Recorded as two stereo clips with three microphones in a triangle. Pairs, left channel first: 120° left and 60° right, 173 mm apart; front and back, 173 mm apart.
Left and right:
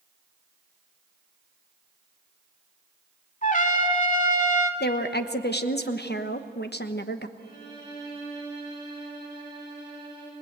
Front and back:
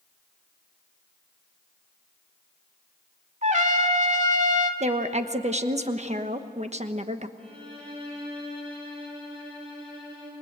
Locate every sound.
3.4 s a trumpet: 145° left, 1.6 m
4.8 s a woman speaking: 130° left, 1.1 m
7.4 s a violin: 125° right, 9 m